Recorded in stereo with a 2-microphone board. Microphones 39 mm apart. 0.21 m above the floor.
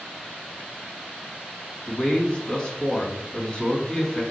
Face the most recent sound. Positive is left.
turn(degrees=20)  # may be behind; listen again after turning